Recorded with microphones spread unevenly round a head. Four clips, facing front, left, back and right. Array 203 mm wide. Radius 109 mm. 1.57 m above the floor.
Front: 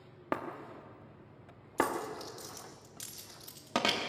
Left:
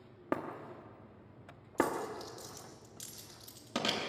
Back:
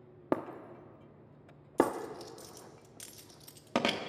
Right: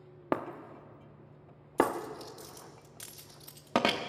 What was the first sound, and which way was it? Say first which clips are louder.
Breaking glass: right 3 dB, back 3 dB; 105° right.